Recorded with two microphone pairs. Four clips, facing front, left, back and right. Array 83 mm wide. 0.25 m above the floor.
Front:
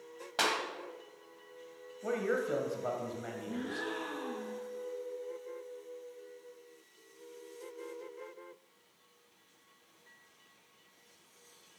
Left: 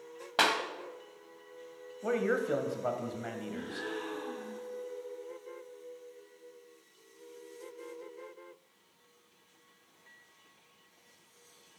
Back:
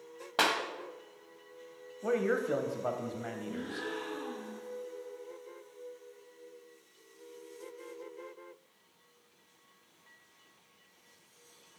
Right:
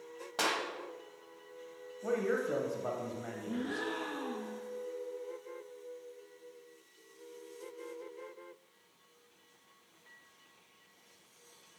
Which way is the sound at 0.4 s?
110° left.